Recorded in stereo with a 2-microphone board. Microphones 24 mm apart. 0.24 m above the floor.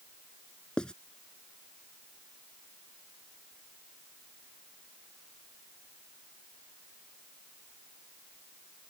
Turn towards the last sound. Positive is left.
turn(degrees=40)  # may be behind; listen again after turning